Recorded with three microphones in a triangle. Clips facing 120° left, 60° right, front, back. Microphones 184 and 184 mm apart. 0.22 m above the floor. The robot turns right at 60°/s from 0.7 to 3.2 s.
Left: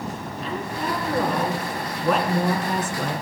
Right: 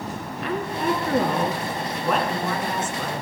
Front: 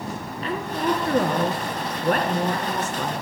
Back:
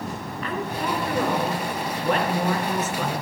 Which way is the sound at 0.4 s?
55° right.